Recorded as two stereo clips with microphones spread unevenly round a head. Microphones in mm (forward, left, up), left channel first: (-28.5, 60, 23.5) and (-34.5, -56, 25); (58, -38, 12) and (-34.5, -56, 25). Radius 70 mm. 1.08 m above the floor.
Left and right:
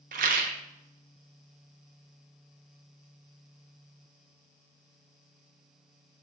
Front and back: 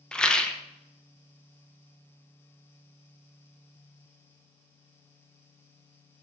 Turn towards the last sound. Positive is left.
turn(degrees=-70)